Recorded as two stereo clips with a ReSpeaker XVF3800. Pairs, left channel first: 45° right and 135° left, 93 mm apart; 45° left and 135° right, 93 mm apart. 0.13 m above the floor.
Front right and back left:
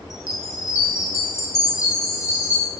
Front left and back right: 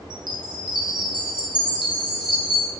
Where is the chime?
100° right, 2.5 m.